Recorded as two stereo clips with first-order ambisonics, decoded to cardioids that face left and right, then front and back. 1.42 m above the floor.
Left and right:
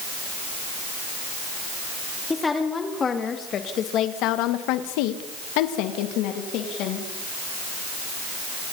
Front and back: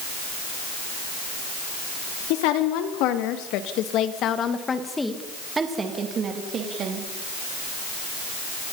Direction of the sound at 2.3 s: 10° left.